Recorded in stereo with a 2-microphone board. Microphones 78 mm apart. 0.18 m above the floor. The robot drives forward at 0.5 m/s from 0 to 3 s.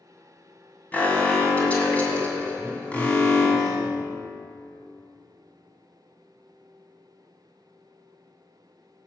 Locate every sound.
0.9 s an alarm: 20° left (ahead or behind), 2 m; by 3.6 s 15° left (ahead or behind), 2.5 m
2.6 s a man speaking: 35° right (ahead or behind), 1.9 m